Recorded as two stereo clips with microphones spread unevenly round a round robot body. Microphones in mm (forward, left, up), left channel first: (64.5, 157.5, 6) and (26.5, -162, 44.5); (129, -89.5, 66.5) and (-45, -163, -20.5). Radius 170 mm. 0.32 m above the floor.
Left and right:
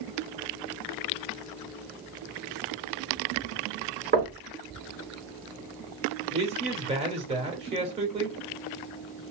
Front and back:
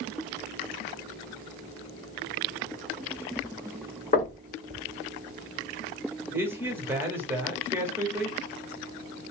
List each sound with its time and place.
4.1 s knocking: 40° right, 1.5 m
6.3 s a man speaking: 165° right, 1.0 m